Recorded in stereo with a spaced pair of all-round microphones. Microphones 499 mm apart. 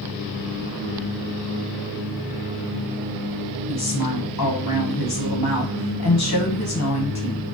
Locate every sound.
3.7 s a woman speaking: 40° left (ahead or behind), 0.7 m